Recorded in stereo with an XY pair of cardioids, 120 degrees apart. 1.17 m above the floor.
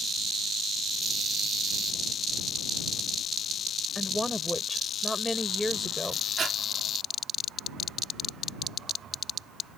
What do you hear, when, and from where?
4.0 s a woman speaking: 5° left
6.4 s breathing: 40° right